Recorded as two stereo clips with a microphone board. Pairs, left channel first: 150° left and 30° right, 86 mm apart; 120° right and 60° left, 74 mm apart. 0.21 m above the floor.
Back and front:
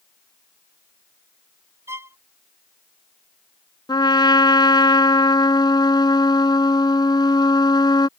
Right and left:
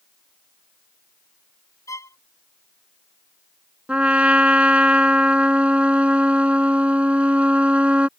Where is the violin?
85° right.